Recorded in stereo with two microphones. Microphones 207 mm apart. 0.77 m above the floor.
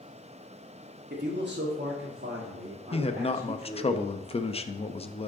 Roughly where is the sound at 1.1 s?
Right.